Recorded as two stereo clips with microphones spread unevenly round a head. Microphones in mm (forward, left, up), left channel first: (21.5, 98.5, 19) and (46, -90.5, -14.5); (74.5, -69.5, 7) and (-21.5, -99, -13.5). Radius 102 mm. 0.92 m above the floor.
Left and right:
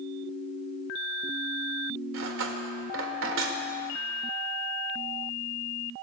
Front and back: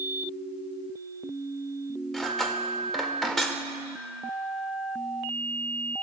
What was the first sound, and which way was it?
Cutlery clinking, 70° right.